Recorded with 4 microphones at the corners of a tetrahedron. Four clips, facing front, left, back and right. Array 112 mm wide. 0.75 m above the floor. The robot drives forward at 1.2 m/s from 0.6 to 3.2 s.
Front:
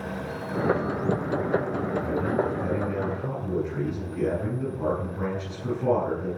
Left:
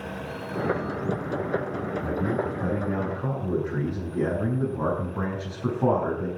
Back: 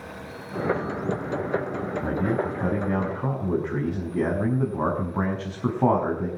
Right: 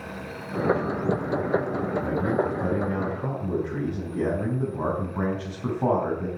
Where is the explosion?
No explosion in this recording.